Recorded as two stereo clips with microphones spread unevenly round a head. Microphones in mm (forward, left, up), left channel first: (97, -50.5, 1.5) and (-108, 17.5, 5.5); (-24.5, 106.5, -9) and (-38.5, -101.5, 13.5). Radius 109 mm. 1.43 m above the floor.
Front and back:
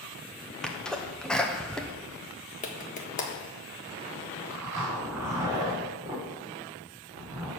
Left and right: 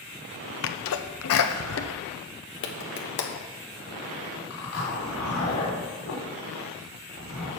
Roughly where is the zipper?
Left.